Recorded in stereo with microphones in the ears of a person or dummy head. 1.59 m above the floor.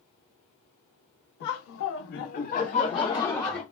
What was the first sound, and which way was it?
Laughter, 55° left (ahead or behind).